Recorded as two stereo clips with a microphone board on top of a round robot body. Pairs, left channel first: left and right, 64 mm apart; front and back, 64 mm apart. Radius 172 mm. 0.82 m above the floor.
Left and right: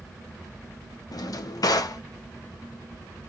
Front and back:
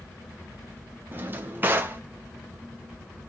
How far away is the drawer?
About 0.5 m.